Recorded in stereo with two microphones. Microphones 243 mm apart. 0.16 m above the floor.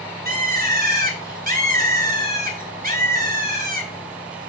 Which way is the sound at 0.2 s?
35° right (ahead or behind).